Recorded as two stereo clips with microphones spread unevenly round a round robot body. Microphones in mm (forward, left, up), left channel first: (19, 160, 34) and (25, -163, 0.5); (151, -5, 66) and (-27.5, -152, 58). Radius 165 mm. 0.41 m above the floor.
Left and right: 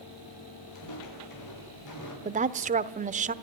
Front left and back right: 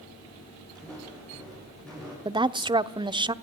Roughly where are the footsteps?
Behind left.